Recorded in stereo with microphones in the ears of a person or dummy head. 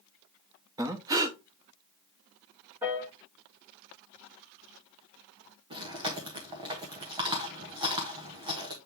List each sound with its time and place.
0.8 s breathing: 15° right (ahead or behind), 0.7 m
2.8 s a piano: 10° right (ahead or behind), 1.6 m
5.7 s chewing: 20° right (ahead or behind), 1.1 m